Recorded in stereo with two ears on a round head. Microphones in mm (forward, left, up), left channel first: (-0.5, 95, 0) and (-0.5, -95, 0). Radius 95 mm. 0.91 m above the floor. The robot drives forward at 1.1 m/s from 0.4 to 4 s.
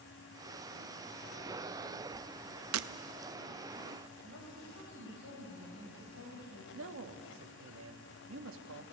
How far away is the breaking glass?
About 0.6 m.